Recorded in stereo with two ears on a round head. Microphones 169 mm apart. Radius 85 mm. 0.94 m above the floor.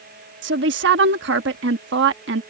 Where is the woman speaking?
65° right (ahead or behind).